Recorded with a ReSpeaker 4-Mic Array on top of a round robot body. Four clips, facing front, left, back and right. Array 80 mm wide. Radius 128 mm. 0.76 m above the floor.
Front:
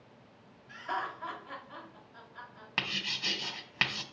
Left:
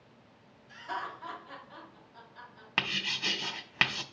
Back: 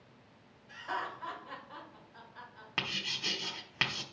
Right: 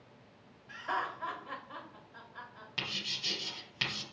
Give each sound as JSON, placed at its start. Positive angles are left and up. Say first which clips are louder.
{"t": 0.7, "sound": "laughter", "louder": "right 2 dB, front 2 dB", "azimuth_deg": -95, "distance_m": 3.5}
{"t": 2.8, "sound": "writing", "louder": "left 8 dB, front 2 dB", "azimuth_deg": 85, "distance_m": 1.0}